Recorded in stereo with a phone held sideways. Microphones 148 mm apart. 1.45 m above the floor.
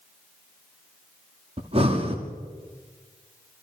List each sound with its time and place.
1.6 s breathing: 40° right (ahead or behind), 2.5 m